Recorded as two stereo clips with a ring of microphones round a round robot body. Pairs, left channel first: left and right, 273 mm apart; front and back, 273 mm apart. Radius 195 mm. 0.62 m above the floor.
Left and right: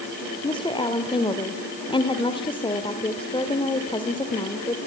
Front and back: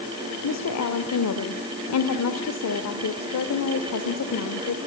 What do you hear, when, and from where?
0.4 s a woman speaking: 20° left, 2 m